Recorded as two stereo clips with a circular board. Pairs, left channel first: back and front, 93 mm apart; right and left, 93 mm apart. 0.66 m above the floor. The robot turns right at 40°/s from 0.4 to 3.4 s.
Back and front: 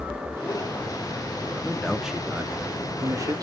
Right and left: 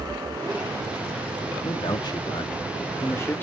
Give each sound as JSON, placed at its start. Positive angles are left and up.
{"t": 1.6, "sound": "a man speaking", "azimuth_deg": -105, "distance_m": 0.8}